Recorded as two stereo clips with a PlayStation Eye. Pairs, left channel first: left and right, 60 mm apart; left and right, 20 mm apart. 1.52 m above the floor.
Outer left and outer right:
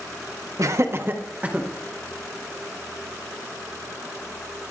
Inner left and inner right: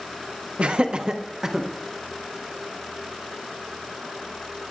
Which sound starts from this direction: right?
Laughter, at 0.6 s.